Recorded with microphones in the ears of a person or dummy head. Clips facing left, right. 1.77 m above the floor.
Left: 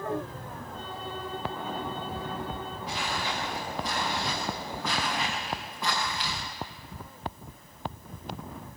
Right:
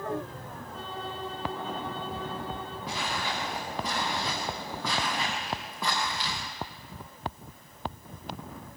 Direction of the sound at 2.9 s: 70° right (ahead or behind).